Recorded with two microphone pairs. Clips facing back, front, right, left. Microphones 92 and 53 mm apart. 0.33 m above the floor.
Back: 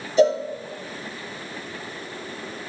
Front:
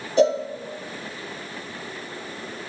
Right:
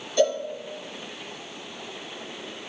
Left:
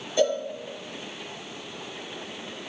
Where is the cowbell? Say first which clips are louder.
Back 1 dB, right 1 dB; 20° left, 4 m.